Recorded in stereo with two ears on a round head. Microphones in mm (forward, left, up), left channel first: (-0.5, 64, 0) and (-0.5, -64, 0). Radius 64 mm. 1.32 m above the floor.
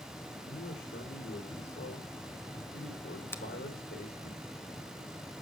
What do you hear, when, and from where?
0.5 s a man speaking: 85° left, 4 m
3.3 s a finger snap: 15° left (ahead or behind), 1.2 m